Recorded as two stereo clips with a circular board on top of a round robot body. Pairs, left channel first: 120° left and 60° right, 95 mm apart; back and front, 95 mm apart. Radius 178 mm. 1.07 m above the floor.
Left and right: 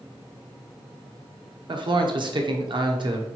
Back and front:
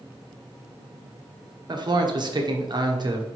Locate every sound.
1.7 s a man speaking: 35° right, 1.2 m